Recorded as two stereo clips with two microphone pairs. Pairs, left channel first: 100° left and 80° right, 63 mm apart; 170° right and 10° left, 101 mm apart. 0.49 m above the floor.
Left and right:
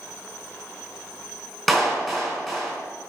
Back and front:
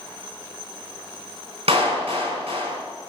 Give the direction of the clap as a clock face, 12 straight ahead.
12 o'clock.